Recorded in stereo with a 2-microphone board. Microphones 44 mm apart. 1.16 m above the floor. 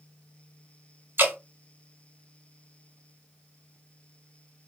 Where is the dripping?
65° right (ahead or behind), 1.8 m.